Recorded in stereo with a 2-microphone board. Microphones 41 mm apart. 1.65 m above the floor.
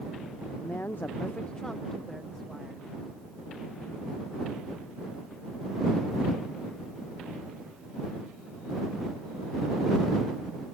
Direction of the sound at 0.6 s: 55° left (ahead or behind).